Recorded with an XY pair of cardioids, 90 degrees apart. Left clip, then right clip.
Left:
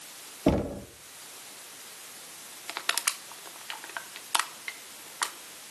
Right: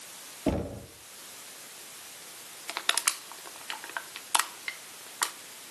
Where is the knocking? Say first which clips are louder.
Left 5 dB; 40° left, 2.5 m.